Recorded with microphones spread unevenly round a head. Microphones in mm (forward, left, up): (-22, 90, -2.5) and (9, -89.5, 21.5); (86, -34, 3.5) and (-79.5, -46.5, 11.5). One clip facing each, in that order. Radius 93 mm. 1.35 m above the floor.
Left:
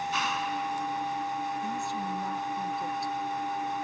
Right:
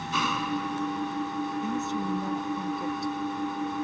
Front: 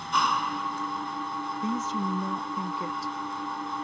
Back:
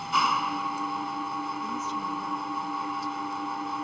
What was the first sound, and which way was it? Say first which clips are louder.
An engine running: right 2 dB, even; 90° right.